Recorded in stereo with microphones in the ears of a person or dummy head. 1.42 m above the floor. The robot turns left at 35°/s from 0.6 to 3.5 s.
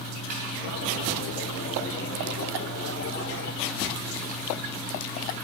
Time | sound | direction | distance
0.3 | a snare drum | 45° right (ahead or behind) | 2.5 m